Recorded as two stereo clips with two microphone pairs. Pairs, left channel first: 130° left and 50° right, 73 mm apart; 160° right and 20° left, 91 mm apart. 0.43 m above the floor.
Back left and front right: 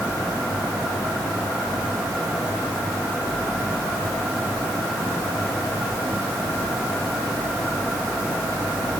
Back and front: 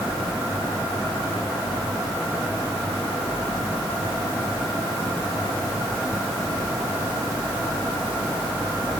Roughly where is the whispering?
No whispering in this recording.